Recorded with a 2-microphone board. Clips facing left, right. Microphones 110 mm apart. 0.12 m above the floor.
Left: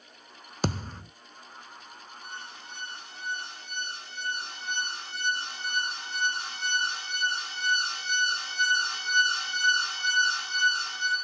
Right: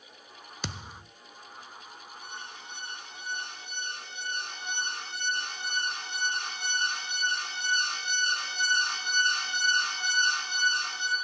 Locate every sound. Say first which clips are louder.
0.6 s a thud: left 10 dB; 45° left (ahead or behind), 0.6 m
2.2 s an alarm: left 1 dB; 65° right (ahead or behind), 9 m